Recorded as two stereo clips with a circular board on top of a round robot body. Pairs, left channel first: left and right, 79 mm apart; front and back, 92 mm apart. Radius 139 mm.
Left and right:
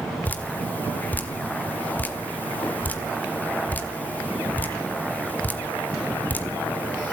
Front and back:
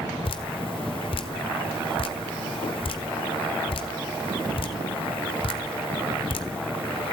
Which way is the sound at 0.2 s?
20° left.